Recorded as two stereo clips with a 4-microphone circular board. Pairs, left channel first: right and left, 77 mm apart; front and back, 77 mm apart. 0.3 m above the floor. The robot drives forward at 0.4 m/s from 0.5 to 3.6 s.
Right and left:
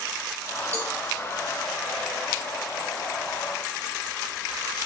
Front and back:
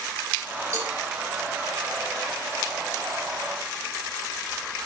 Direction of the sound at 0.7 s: 140° left.